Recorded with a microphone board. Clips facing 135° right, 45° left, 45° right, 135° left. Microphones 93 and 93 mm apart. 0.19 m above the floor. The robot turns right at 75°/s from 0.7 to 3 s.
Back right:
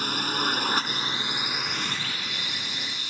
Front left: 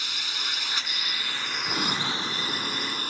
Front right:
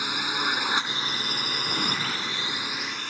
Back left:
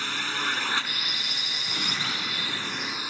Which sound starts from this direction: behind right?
A drone, at 0.0 s.